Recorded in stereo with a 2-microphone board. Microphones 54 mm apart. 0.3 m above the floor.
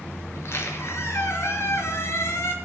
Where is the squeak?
60° left (ahead or behind), 3 m.